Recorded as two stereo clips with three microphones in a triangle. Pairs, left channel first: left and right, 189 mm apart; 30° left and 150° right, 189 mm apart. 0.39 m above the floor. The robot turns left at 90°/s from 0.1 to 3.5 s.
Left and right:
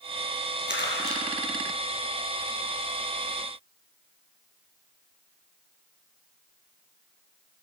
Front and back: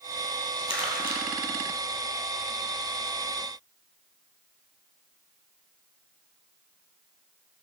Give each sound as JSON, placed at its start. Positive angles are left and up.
{"t": 0.7, "sound": "crumpling", "azimuth_deg": -80, "distance_m": 2.0}